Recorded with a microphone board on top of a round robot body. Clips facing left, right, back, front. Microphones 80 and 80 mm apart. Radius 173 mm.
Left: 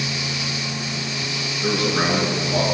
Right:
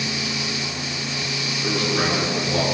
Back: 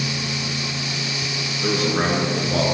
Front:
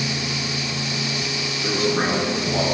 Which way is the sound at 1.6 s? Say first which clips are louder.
Left 2 dB, back 1 dB; 155° left.